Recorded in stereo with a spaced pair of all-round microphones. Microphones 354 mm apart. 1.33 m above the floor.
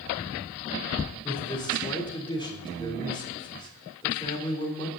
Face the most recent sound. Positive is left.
turn(degrees=10)  # may be behind; listen again after turning